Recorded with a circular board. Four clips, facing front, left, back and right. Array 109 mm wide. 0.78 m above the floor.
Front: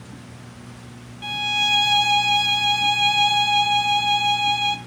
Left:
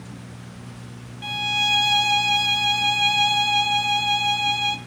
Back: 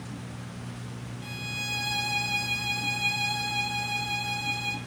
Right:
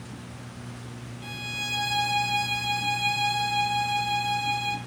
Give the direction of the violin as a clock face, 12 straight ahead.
11 o'clock.